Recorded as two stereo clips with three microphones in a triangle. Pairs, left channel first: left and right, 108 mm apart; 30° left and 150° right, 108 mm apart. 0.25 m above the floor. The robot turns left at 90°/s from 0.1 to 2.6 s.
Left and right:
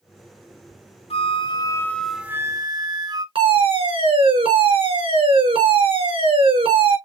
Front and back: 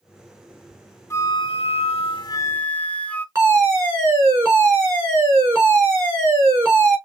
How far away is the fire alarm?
About 5 m.